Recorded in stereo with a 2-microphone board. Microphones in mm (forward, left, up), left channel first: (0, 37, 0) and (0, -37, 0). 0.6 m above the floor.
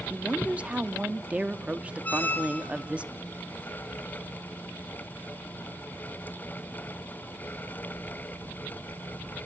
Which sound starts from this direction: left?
A squeak, at 2.0 s.